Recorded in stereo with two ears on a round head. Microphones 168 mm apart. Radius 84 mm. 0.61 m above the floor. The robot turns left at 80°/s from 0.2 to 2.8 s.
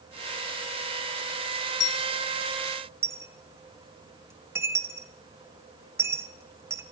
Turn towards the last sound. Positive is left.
turn(degrees=-15)  # may be behind; listen again after turning